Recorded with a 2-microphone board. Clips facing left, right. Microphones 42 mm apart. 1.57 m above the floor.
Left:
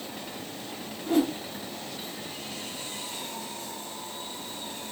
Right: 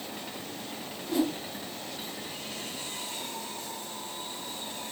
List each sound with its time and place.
1.1 s a whoosh: 45° left (ahead or behind), 1.0 m